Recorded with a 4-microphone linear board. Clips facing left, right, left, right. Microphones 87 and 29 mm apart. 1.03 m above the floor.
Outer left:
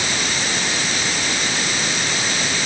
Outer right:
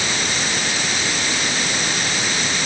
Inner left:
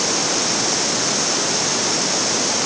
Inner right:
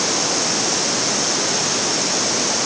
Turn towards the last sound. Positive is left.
No sound to turn to.